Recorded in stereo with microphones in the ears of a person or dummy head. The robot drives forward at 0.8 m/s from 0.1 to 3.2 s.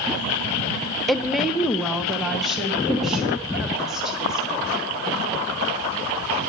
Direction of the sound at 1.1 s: 5° left (ahead or behind).